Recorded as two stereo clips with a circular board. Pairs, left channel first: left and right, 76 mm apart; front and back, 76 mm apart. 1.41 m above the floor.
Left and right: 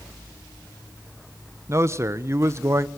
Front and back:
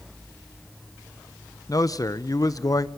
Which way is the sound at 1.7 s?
35° right.